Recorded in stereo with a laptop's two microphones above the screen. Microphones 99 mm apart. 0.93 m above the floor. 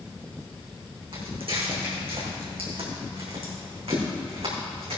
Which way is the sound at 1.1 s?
65° right (ahead or behind).